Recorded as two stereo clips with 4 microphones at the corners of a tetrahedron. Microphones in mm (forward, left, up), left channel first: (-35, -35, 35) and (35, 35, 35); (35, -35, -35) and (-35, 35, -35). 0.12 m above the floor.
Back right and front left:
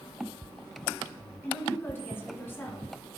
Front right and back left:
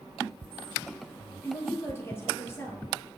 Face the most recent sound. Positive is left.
turn(degrees=-85)